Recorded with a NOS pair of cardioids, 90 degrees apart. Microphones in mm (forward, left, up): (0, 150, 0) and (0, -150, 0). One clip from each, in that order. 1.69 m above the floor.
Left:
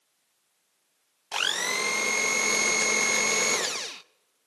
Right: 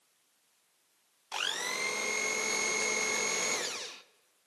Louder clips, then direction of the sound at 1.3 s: Left 7 dB; 35° left.